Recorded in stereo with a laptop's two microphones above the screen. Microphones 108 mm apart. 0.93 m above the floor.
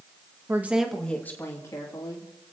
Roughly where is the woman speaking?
Right.